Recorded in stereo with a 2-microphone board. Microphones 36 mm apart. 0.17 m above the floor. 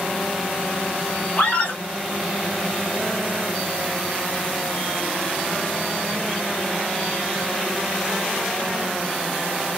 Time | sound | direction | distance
1.4 | a scream | 40° left (ahead or behind) | 2.5 m